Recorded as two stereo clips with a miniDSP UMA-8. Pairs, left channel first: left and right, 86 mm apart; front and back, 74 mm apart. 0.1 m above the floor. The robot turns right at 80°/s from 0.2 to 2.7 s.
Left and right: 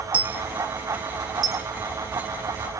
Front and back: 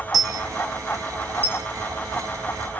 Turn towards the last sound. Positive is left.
turn(degrees=40)